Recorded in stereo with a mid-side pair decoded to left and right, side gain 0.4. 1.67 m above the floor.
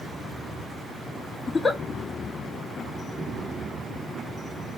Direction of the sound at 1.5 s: 30° left.